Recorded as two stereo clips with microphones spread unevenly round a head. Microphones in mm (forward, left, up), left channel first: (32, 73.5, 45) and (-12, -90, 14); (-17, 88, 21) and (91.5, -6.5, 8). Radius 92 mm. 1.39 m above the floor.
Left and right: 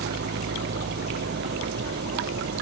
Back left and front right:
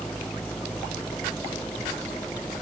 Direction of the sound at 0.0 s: 135° right.